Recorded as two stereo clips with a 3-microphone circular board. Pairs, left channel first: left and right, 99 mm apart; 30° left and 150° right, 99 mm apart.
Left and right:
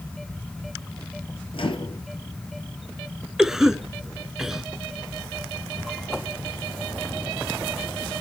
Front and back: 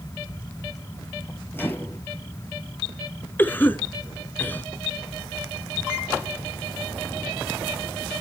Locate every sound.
1.5 s a microwave: 95° left, 1.7 m
3.4 s a cough: 10° right, 1.2 m